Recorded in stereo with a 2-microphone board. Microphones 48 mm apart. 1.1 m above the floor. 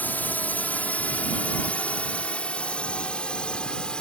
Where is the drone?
35° left (ahead or behind); by 4.0 s 20° left (ahead or behind).